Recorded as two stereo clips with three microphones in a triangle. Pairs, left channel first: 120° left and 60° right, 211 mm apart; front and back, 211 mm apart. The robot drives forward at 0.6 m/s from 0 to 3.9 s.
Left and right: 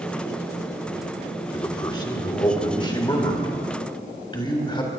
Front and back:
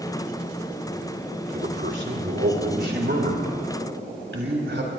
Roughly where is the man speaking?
Behind.